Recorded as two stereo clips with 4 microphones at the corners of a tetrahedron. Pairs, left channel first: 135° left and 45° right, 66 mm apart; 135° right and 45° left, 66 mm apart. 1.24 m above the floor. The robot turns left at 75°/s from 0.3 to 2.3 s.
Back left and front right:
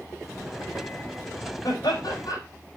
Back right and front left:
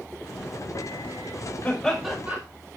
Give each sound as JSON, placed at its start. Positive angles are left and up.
{"t": 1.6, "sound": "laughter", "azimuth_deg": 155, "distance_m": 4.5}